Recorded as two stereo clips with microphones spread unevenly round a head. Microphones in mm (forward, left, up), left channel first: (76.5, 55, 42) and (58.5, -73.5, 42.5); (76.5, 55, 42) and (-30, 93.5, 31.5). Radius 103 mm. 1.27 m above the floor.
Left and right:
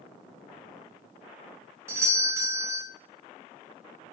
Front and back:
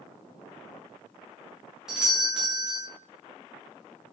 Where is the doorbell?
135° right, 0.5 m.